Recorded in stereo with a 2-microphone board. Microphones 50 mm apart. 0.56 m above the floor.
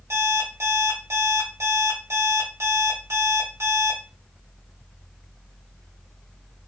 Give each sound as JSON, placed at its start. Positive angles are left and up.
{"t": 0.1, "sound": "an alarm clock", "side_deg": -75, "distance_m": 1.9}